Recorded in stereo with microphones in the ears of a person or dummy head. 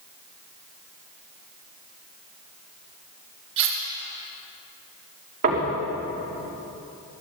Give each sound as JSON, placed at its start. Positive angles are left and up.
{"t": 3.6, "sound": "cutlery clinking", "side_deg": -55, "distance_m": 1.9}
{"t": 5.4, "sound": "knocking", "side_deg": -45, "distance_m": 2.5}